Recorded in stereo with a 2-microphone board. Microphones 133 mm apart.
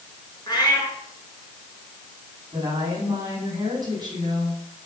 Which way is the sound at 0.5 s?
35° left (ahead or behind).